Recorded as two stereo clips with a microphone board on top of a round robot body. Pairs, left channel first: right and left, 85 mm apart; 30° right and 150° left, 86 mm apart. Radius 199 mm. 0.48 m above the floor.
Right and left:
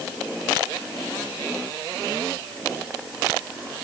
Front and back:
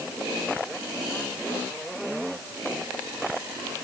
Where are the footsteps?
No footsteps in this recording.